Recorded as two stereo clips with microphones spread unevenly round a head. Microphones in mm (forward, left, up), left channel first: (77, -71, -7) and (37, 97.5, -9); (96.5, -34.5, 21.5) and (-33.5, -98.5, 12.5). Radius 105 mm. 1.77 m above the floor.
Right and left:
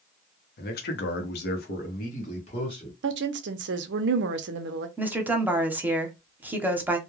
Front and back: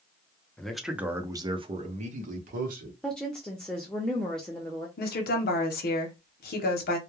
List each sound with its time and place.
0.6 s a man speaking: 55° right, 0.8 m; by 2.9 s 145° right, 1.1 m
3.0 s a woman speaking: 110° left, 0.5 m
5.0 s a woman speaking: 25° left, 0.8 m